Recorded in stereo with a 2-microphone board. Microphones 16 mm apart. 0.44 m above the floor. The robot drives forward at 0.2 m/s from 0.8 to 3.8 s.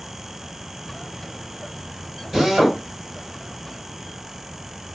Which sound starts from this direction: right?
A drill, at 2.3 s.